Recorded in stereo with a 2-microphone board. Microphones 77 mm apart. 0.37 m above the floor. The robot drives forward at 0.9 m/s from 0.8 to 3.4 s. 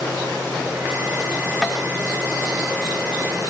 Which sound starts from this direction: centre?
Tapping, at 1.6 s.